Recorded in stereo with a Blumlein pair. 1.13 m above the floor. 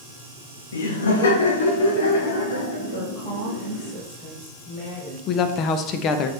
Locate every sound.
0.7 s laughter: 65° left, 1.5 m; by 3.9 s 60° left, 4 m
2.9 s a woman speaking: 35° left, 3 m
5.3 s a woman speaking: 35° left, 0.8 m